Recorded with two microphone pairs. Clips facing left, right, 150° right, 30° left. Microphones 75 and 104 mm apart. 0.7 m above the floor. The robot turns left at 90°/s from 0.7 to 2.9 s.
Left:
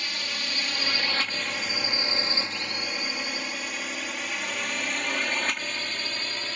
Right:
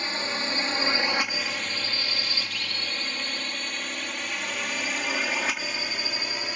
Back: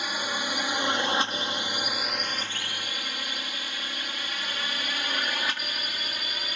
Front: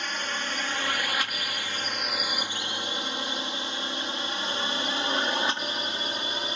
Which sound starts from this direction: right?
A drone, at 0.0 s.